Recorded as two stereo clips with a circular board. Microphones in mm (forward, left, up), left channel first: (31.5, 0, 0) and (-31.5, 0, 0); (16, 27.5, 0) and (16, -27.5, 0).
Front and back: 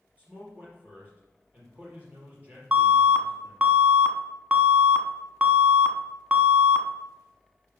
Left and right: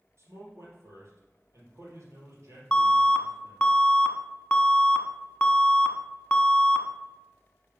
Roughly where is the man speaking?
Behind right.